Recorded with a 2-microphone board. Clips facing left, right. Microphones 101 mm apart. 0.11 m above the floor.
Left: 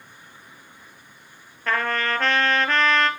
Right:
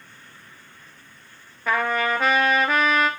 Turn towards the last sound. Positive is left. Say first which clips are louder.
# right 2 dB
turn(degrees=-10)  # may be behind; listen again after turning